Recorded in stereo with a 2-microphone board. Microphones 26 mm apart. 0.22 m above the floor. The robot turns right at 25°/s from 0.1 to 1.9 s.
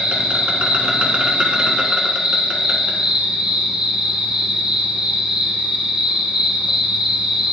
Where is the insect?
80° right, 1.3 m; by 7.5 s 35° right, 1.3 m.